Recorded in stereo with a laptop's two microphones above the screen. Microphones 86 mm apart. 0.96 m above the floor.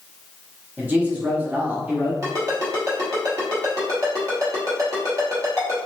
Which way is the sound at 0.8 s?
20° right (ahead or behind).